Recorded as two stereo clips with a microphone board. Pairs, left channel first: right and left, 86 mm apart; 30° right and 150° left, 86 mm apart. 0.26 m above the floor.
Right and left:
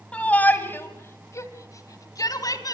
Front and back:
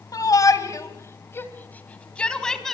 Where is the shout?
20° right, 2 m; by 2.8 s 115° right, 2.5 m.